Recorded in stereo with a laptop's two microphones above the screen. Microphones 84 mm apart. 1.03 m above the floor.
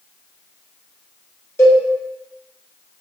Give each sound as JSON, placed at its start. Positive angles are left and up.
{"t": 1.6, "sound": "a cowbell", "side_deg": 30, "distance_m": 0.7}